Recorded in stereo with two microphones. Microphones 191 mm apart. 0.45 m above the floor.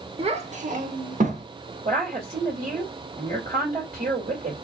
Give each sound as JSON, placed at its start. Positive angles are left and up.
{"t": 0.2, "sound": "a child speaking", "side_deg": -30, "distance_m": 0.7}
{"t": 1.9, "sound": "a woman speaking", "side_deg": -45, "distance_m": 1.9}